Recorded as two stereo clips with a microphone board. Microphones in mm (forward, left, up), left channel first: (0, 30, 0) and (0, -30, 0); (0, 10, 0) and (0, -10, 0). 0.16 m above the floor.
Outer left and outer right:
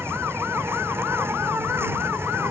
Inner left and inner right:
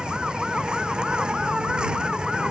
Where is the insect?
45° right (ahead or behind).